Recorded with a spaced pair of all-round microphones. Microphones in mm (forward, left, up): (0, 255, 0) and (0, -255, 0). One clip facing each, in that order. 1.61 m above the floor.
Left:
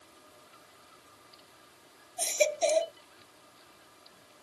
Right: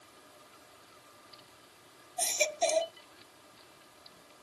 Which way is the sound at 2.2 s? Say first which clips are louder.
Left 5 dB; 15° right (ahead or behind).